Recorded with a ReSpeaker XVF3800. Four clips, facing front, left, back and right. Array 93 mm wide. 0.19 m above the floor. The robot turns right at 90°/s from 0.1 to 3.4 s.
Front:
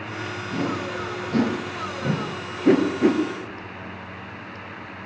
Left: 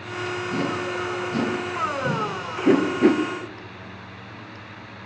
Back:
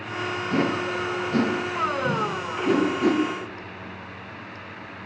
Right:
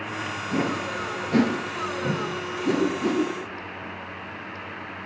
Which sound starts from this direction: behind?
A whoosh, at 0.5 s.